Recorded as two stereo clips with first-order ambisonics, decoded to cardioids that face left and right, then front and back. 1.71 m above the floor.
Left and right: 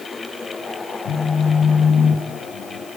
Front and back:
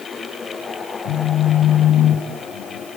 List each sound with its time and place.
1.1 s a phone buzzing: 45° left, 5.5 m